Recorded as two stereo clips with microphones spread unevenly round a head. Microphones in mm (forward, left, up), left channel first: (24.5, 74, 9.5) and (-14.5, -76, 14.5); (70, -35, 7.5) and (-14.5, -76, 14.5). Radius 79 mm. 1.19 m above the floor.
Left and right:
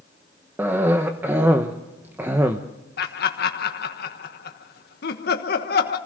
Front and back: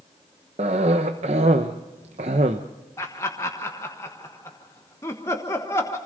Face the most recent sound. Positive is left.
turn(degrees=95)